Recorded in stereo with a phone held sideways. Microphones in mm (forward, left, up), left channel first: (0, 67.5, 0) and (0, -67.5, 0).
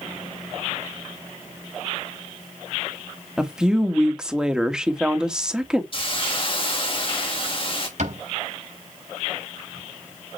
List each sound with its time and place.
3.4 s a woman speaking: 5° right (ahead or behind), 2 m
5.9 s a hiss: 40° left (ahead or behind), 3 m
8.0 s a cupboard door: 60° right (ahead or behind), 6 m